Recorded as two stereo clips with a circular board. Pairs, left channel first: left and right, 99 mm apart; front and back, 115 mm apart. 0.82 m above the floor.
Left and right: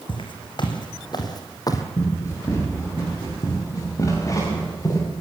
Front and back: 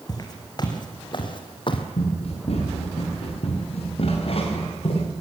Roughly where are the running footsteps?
Ahead left.